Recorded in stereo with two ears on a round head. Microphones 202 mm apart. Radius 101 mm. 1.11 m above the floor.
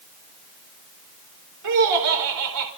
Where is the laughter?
85° right, 4.5 m.